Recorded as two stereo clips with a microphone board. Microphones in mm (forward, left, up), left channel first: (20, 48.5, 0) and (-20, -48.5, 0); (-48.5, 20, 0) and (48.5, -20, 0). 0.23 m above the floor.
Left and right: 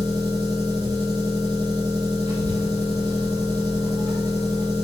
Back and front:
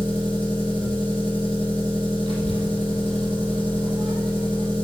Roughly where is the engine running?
Ahead right.